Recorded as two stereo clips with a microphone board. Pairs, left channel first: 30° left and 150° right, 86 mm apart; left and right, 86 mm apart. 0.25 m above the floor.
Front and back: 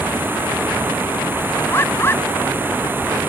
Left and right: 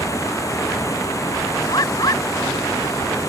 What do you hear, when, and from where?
0.0 s running water: 145° left
1.7 s a bird: 80° left